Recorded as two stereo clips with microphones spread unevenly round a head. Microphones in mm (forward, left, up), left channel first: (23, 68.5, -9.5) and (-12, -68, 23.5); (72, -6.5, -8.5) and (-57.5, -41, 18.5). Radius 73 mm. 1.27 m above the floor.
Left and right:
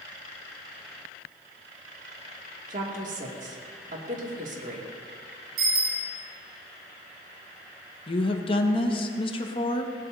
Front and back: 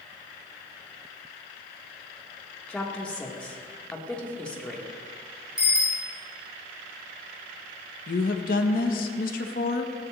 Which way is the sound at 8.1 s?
25° left.